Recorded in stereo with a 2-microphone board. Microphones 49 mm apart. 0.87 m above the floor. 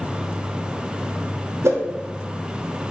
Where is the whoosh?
70° right (ahead or behind), 1.3 m.